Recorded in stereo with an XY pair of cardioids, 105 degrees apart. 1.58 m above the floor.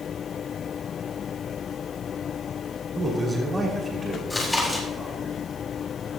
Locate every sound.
3.0 s a man speaking: 15° right, 5.5 m
4.3 s chewing: 15° left, 4.5 m